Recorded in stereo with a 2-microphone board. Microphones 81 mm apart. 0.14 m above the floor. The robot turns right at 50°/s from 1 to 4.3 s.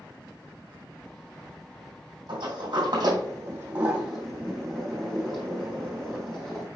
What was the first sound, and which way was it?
A sliding door, 80° right.